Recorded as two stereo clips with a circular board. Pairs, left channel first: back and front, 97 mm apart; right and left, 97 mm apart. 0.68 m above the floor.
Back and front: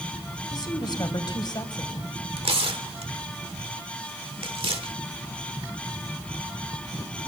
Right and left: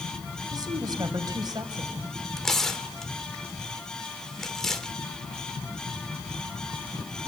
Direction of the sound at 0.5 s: 135° left.